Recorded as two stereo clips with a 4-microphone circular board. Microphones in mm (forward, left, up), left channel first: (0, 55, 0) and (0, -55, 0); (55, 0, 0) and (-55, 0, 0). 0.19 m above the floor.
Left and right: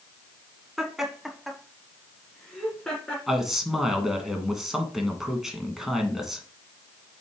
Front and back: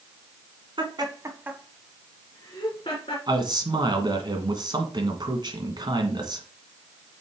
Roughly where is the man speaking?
Behind.